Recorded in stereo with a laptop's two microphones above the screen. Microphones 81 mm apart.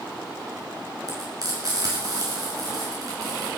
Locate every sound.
1.1 s frying: 50° right (ahead or behind), 4.5 m